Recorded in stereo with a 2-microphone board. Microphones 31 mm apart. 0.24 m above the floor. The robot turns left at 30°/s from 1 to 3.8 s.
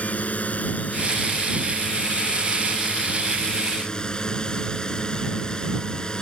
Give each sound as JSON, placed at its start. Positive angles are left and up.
{"t": 0.0, "sound": "a drone", "azimuth_deg": 115}